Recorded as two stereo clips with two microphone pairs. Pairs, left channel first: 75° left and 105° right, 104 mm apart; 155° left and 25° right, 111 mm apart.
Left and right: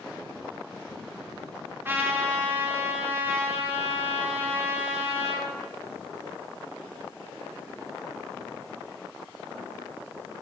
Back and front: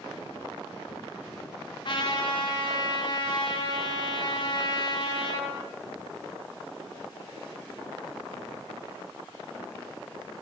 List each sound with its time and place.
1.9 s a trumpet: 170° right, 2 m